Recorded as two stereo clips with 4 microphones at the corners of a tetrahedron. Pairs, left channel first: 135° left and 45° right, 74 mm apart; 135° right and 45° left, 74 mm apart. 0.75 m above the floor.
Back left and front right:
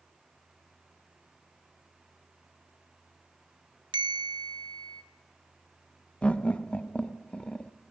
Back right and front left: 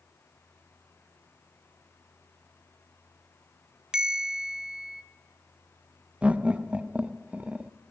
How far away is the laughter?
About 0.6 m.